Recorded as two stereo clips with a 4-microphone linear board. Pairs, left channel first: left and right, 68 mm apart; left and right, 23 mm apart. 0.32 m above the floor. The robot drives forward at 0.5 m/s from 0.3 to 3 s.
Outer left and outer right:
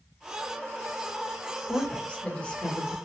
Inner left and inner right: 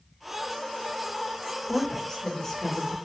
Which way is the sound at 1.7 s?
15° left (ahead or behind).